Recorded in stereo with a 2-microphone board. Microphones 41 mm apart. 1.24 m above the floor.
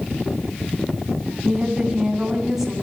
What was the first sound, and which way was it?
A woman speaking, 10° right (ahead or behind).